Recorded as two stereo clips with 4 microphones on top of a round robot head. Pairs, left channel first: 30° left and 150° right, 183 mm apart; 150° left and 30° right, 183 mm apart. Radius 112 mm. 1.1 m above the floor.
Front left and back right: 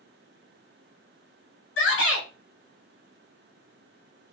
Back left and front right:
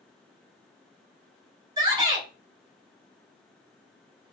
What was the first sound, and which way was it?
A shout, 35° left.